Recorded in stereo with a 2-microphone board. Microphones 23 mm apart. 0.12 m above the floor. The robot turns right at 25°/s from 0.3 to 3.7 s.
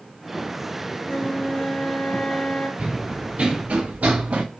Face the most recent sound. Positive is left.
turn(degrees=-60)  # may be behind; listen again after turning